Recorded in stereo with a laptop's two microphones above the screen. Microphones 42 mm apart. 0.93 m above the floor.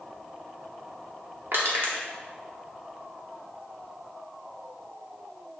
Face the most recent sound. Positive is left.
turn(degrees=-65)  # may be behind; listen again after turning